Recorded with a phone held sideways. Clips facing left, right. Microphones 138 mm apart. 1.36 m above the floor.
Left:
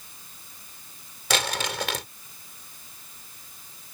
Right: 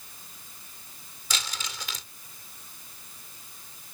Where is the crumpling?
70° left (ahead or behind).